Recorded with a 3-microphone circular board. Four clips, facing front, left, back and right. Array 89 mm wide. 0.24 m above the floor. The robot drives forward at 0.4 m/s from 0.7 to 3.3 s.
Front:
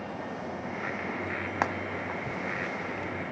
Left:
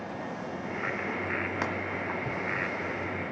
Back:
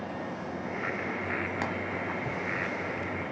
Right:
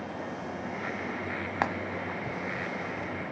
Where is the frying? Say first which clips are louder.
Right 6 dB, front 7 dB; 45° right, 1.2 m; by 1.7 s 50° right, 1.2 m.